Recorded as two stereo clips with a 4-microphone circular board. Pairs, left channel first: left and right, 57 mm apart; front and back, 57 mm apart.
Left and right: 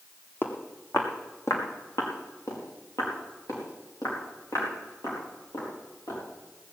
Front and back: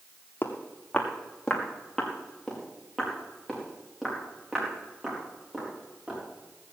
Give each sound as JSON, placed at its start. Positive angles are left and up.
{"t": 0.4, "sound": "footsteps", "azimuth_deg": 45, "distance_m": 1.9}